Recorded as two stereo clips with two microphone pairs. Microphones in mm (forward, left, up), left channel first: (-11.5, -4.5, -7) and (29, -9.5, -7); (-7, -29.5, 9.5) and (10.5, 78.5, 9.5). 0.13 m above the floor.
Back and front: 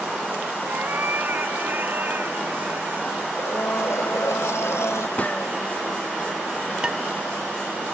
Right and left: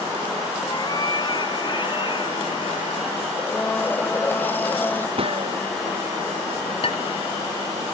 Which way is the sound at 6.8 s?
75° right.